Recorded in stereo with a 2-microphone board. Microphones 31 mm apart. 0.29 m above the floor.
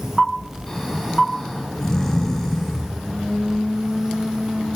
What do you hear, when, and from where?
0.7 s snoring: 10° left (ahead or behind), 3 m